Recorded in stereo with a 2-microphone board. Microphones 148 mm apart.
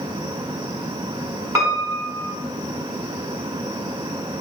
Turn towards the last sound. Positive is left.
turn(degrees=-20)  # may be behind; listen again after turning